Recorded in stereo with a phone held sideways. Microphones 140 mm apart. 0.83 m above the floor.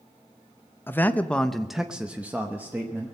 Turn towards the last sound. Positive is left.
turn(degrees=-15)  # may be behind; listen again after turning